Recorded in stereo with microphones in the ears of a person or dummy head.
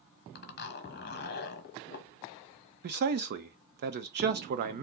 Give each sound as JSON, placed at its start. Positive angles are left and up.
{"t": 0.3, "sound": "a zipper", "side_deg": 50, "distance_m": 0.9}
{"t": 2.8, "sound": "a man speaking", "side_deg": -55, "distance_m": 0.6}